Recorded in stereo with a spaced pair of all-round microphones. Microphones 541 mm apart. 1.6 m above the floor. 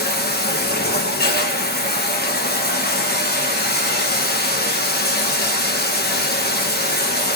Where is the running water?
20° left (ahead or behind), 1.0 m.